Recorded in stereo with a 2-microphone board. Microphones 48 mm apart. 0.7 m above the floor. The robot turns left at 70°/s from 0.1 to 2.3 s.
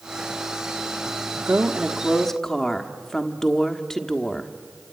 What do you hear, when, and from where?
1.5 s a woman speaking: 130° right, 1.2 m; by 4.5 s 170° left, 1.2 m